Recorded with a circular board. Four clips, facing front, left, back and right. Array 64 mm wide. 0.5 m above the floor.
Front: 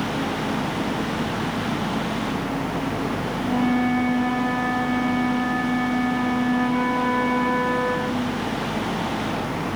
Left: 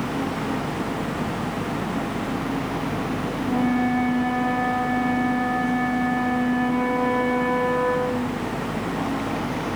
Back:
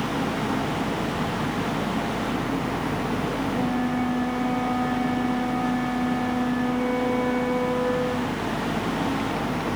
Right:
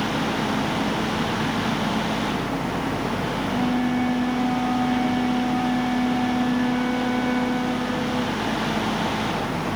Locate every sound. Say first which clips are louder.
3.4 s a flute: left 3 dB, front 8 dB; 35° left, 3 m